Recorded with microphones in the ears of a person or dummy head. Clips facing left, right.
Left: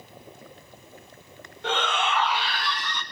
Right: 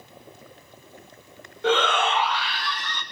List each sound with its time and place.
1.6 s a shout: 60° right (ahead or behind), 1.1 m; by 3.0 s 70° left (ahead or behind), 1.3 m